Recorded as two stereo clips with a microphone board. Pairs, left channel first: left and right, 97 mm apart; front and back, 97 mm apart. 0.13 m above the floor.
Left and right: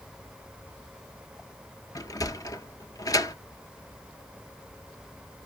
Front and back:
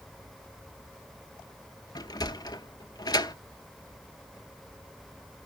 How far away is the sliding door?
About 0.7 m.